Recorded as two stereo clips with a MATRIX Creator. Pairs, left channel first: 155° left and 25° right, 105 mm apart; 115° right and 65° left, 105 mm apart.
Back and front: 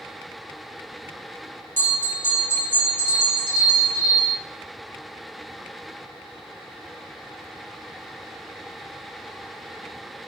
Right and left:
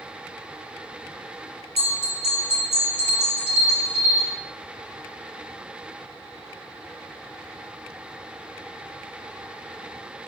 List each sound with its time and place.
1.8 s a bell: 135° right, 3.5 m